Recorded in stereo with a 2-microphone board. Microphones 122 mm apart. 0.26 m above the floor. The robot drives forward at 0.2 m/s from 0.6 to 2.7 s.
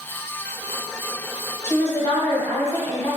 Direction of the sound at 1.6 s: 25° left (ahead or behind).